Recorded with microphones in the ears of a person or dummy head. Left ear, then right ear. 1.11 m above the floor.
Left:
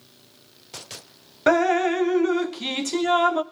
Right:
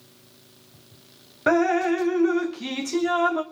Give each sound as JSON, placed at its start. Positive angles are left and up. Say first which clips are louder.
{"t": 1.5, "sound": "dripping", "louder": "left 1 dB", "side_deg": 25, "distance_m": 0.9}